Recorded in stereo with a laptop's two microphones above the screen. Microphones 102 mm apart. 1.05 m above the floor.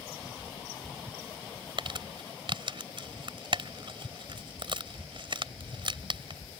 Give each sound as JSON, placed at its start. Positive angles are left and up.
{"t": 1.8, "sound": "crumpling", "side_deg": -55}